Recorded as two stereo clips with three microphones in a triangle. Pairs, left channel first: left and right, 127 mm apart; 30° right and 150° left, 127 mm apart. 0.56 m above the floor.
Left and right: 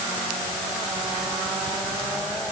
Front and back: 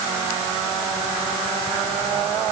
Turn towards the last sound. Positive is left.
No sound to turn to.